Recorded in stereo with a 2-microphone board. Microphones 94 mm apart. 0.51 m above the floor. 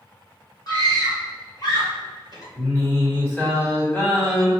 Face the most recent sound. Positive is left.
turn(degrees=25)  # may be behind; listen again after turning